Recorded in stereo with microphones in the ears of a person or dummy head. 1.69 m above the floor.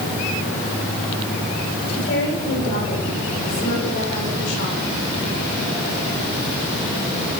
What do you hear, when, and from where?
1.9 s a woman speaking: 75° left (ahead or behind), 8 m